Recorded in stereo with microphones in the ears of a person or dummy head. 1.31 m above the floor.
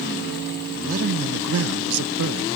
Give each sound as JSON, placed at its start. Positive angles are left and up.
{"t": 0.8, "sound": "a man speaking", "side_deg": -40}